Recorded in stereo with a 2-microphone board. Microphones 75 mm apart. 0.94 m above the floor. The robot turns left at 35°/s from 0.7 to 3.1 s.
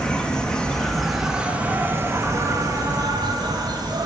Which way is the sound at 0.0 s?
10° left.